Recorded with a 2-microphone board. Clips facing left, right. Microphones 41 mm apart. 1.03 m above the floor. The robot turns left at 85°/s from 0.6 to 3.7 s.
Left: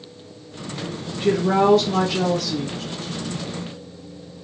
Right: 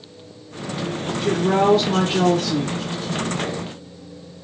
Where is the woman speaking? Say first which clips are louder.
Left 1 dB; 30° left, 0.9 m; by 2.8 s 105° right, 0.9 m.